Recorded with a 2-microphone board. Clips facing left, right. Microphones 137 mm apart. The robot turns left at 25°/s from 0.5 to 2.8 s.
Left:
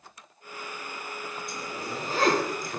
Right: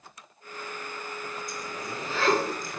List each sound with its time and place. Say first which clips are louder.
1.5 s a zipper: left 1 dB; 150° left, 2 m; by 2.8 s 120° left, 2 m